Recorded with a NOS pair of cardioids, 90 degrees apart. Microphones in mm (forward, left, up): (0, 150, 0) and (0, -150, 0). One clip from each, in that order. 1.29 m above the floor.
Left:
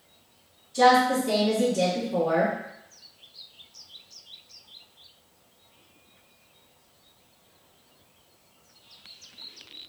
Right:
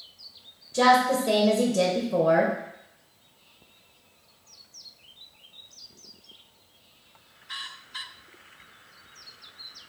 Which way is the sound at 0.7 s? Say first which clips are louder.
Left 1 dB; 70° right.